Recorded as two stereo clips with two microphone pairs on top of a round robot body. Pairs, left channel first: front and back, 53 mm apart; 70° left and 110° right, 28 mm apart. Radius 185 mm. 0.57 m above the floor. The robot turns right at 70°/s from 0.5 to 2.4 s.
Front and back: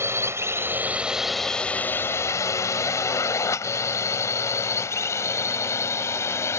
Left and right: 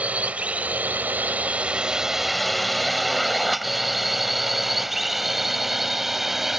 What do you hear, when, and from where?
0.0 s a drone: 140° right; by 6.6 s 30° right